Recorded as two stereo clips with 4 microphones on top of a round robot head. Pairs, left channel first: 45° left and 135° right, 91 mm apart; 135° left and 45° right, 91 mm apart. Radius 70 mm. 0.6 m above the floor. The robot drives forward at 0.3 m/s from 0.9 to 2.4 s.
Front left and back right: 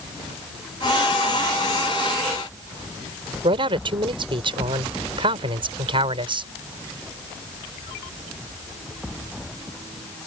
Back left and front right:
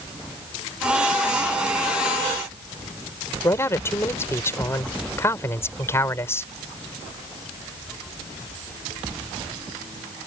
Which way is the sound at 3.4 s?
165° right.